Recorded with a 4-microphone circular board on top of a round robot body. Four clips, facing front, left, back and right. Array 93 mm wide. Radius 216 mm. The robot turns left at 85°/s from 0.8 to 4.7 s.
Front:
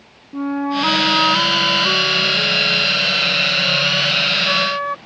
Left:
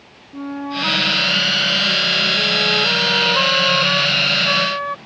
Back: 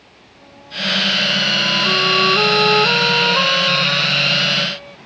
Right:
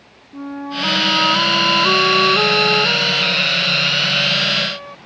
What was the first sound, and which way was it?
A flute, 5° left.